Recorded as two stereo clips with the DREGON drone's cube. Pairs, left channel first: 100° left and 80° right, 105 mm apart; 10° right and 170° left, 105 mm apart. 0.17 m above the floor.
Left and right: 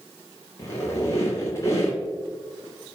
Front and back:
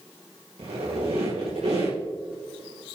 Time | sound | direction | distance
0.6 | a squeak | 165° left | 4.5 m